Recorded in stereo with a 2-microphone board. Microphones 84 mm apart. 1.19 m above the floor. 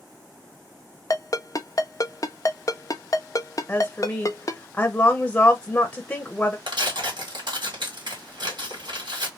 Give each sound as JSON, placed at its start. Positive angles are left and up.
{"t": 1.1, "sound": "a ringtone", "side_deg": 45, "distance_m": 0.5}
{"t": 3.7, "sound": "a woman speaking", "side_deg": 15, "distance_m": 0.7}
{"t": 6.7, "sound": "tearing paper", "side_deg": -75, "distance_m": 1.9}